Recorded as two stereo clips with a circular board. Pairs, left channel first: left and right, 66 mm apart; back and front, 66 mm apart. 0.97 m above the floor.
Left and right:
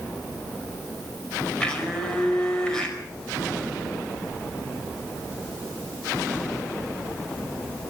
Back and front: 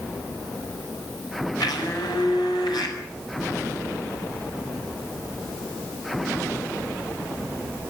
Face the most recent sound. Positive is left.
turn(degrees=170)